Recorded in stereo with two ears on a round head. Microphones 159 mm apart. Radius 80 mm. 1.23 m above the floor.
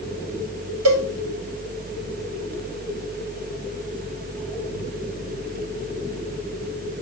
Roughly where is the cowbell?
Right.